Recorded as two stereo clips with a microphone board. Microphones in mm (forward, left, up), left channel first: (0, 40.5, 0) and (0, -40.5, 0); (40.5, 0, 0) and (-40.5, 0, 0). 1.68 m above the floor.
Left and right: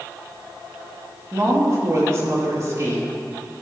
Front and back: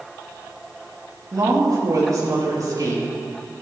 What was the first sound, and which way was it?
A woman speaking, 140° right.